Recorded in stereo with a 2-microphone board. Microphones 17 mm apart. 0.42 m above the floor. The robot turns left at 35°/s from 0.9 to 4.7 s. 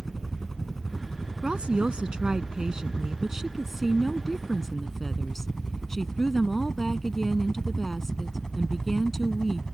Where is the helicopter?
15° left (ahead or behind); by 9.8 s 40° left (ahead or behind).